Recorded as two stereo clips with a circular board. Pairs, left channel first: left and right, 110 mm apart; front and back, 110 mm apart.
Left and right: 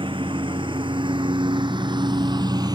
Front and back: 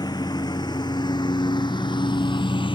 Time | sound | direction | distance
0.0 | a lawn mower | 50° right | ?